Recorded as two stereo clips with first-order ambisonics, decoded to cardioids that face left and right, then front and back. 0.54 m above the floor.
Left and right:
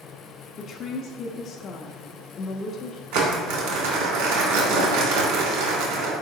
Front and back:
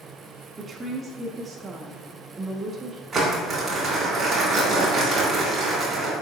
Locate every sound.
0.6 s a woman speaking: 120° left, 0.7 m
3.1 s crumpling: 100° right, 3 m